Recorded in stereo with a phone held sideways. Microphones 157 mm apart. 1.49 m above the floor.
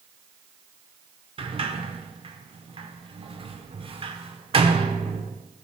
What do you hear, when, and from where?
1.4 s a sliding door: 35° right (ahead or behind), 0.5 m